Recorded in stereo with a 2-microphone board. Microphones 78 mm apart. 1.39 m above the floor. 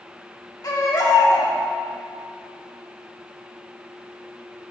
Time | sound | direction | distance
0.6 | a baby crying | 55° left (ahead or behind) | 1.7 m